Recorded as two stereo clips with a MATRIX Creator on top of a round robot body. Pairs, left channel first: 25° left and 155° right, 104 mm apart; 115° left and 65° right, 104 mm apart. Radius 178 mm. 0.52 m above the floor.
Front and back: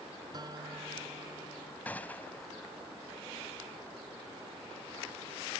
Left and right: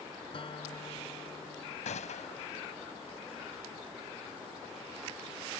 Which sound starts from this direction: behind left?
A guitar, at 0.3 s.